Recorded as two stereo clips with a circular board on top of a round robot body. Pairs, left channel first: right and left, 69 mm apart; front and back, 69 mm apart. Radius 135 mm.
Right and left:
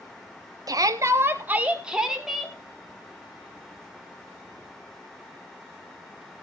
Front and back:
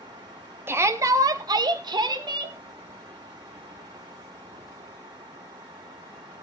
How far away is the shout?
About 1.6 m.